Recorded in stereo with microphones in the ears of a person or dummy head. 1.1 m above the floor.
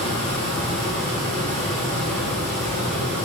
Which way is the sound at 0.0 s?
10° left (ahead or behind).